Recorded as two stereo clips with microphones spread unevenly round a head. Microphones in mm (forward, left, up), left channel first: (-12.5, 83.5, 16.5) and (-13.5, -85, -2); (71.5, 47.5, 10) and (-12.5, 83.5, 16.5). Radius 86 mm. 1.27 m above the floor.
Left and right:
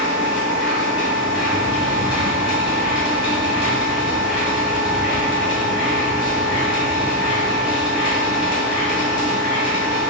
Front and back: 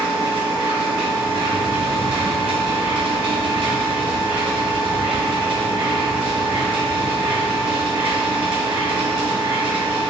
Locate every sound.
0.0 s a machine running: 150° left, 2.0 m